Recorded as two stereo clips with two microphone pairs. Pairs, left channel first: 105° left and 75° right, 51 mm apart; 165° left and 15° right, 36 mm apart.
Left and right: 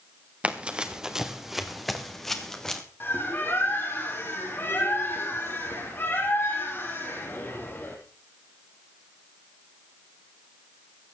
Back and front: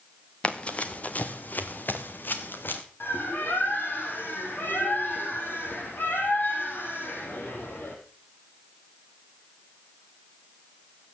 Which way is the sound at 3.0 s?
145° left.